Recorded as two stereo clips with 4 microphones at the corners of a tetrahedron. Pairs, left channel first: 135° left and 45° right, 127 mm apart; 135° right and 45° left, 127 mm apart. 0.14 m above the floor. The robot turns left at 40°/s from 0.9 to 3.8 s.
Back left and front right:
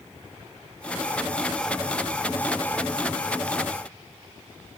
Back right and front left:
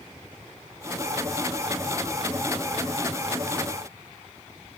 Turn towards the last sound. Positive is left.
No sound to turn to.